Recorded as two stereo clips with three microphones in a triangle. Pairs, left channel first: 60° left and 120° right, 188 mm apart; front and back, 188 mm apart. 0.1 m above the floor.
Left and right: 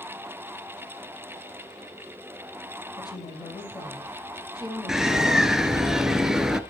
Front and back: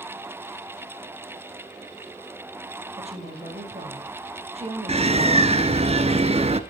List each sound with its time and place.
2.9 s a woman speaking: 125° left, 4 m
4.9 s a bird: 155° left, 0.9 m